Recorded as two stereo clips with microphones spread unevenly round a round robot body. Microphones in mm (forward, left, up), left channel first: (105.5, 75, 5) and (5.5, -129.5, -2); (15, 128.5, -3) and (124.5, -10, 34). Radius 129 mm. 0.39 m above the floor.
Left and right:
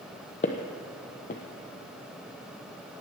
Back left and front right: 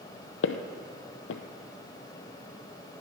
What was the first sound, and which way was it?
Footsteps, 125° left.